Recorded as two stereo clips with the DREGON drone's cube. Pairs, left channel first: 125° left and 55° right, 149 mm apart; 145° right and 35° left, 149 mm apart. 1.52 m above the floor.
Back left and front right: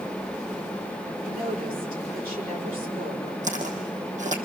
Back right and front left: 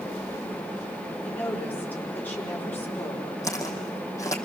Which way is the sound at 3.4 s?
80° right.